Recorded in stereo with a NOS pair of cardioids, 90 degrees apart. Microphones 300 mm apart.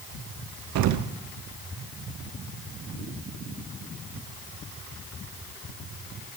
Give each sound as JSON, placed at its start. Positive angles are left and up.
{"t": 0.8, "sound": "an explosion", "azimuth_deg": -65, "distance_m": 0.9}